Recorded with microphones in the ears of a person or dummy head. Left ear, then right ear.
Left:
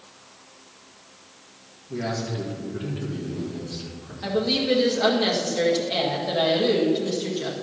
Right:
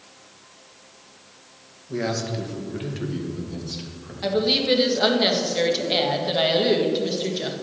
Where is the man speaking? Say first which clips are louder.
Right 3 dB; 80° right, 1.8 m; by 4.1 s 70° right (ahead or behind), 2.5 m.